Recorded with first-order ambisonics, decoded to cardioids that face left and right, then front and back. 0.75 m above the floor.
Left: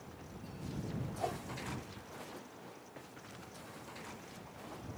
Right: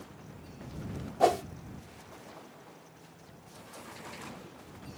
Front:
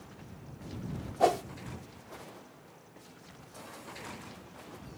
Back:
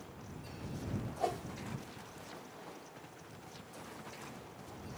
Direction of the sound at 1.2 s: 55° right.